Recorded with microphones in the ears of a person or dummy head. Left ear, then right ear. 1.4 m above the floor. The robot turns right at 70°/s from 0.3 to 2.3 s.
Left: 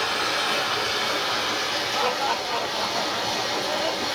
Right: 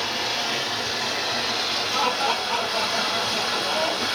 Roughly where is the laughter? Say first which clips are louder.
Right 2 dB; centre.